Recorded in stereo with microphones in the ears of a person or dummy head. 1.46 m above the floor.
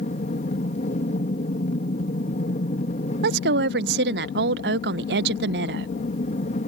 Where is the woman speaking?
65° right (ahead or behind).